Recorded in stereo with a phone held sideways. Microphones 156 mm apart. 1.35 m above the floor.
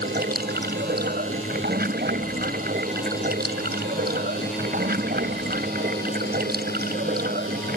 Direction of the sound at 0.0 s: 85° right.